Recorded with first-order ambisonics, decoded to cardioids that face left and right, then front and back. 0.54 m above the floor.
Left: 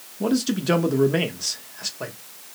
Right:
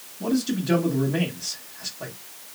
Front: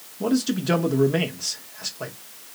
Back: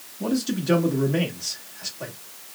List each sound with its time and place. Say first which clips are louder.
0.2 s a man speaking: left 3 dB, front 2 dB; 60° left, 0.7 m